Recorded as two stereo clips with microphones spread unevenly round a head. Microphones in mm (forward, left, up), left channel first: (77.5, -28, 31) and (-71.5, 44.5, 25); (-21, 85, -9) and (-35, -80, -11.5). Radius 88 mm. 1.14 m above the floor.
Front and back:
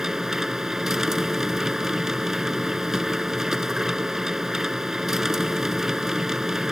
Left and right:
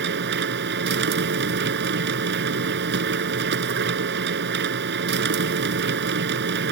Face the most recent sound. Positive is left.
turn(degrees=-120)